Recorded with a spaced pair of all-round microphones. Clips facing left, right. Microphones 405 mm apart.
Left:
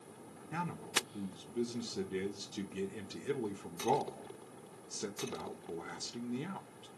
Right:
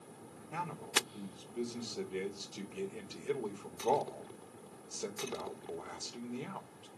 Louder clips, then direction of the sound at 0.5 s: Even; 35° left (ahead or behind).